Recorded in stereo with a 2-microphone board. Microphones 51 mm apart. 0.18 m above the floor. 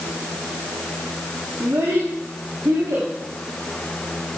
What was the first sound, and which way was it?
A child speaking, 65° right (ahead or behind).